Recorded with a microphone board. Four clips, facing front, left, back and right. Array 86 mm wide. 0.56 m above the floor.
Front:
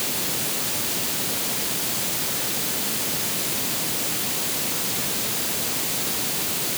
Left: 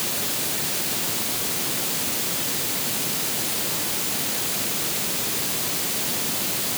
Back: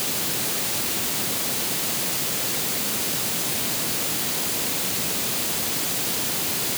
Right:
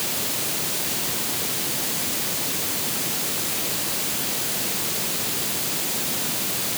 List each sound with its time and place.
Only background noise.